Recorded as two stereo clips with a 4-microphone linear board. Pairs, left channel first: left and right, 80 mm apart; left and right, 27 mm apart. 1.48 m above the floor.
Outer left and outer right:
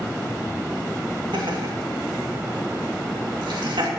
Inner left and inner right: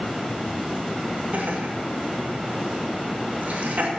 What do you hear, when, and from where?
1.3 s laughter: 80° right, 2.5 m